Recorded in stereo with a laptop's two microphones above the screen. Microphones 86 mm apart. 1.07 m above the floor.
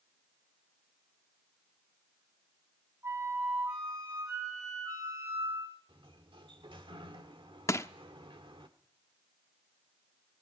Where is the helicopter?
I don't hear a helicopter.